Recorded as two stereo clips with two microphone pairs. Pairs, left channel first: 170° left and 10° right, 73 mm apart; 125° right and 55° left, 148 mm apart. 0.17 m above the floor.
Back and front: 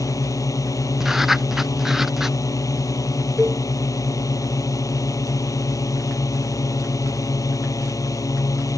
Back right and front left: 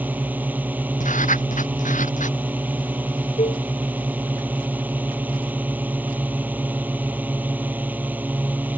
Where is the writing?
95° right.